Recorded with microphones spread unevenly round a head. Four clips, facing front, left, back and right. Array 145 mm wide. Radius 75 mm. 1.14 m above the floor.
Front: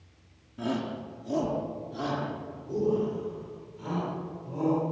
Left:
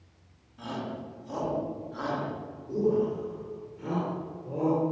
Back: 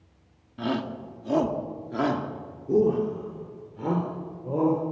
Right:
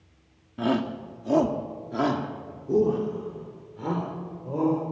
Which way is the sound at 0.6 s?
95° right.